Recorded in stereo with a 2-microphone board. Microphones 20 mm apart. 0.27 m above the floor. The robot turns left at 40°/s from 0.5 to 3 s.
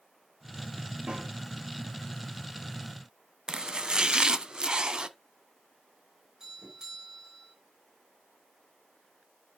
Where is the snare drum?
70° right (ahead or behind), 5.5 m; by 1.3 s 75° right (ahead or behind), 5.5 m.